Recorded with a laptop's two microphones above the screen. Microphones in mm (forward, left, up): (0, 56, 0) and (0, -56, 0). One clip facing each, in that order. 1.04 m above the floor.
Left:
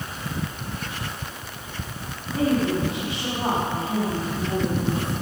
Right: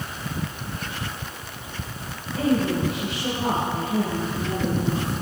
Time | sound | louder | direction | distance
2.3 | a woman speaking | even | 10° left (ahead or behind) | 5 m